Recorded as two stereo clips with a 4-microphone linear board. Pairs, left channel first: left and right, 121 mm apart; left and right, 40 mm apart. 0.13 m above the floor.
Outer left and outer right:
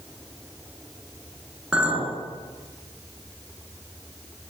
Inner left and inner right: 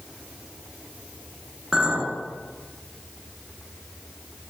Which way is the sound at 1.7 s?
10° right (ahead or behind).